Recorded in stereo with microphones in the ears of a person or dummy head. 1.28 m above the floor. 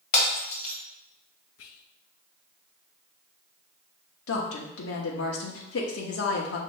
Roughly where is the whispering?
Left.